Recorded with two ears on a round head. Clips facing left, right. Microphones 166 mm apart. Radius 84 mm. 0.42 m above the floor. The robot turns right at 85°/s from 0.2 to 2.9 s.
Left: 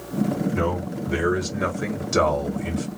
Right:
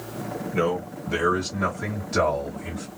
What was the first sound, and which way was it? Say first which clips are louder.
A man speaking: even; 45° right.